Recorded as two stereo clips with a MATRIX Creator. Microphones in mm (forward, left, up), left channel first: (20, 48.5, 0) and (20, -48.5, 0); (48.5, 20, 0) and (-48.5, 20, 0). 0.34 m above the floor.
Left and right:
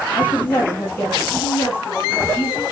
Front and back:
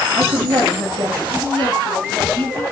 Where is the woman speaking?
165° left, 8 m; by 2.6 s 155° left, 7 m.